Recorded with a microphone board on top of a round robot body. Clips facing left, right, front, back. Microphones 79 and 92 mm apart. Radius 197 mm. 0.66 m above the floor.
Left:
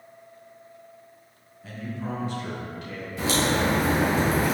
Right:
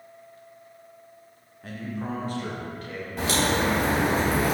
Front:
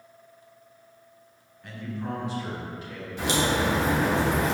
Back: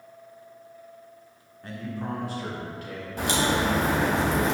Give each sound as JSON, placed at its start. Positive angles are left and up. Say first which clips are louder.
{"t": 1.6, "sound": "a man speaking", "louder": "right 1 dB, back 1 dB", "azimuth_deg": -125, "distance_m": 2.5}
{"t": 3.2, "sound": "a crack", "louder": "even, even", "azimuth_deg": -135, "distance_m": 3.0}